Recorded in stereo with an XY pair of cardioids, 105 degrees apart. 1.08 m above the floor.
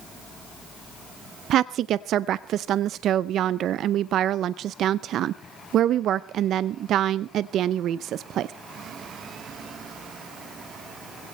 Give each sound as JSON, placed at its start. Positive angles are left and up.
{"t": 1.5, "sound": "a woman speaking", "azimuth_deg": -70, "distance_m": 0.5}